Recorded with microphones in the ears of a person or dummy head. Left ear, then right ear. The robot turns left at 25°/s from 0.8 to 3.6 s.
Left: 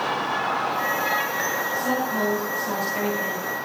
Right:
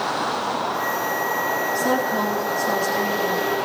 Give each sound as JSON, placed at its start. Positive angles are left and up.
{"t": 1.7, "sound": "a woman speaking", "azimuth_deg": -175, "distance_m": 9.5}